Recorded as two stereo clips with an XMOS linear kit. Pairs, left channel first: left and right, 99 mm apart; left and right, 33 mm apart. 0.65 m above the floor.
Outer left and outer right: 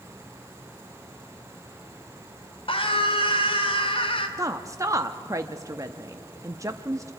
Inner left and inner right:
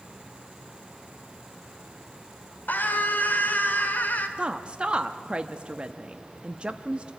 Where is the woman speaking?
30° right (ahead or behind), 0.7 m.